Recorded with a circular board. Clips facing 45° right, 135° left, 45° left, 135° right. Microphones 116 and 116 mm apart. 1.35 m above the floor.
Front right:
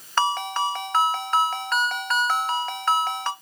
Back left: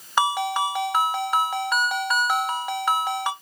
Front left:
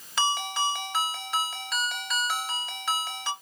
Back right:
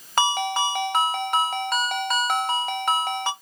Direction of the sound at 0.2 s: 150° right.